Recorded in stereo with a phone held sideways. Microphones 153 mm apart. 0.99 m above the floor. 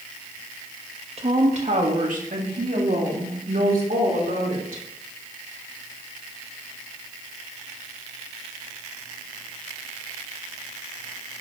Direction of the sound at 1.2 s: 45° right (ahead or behind).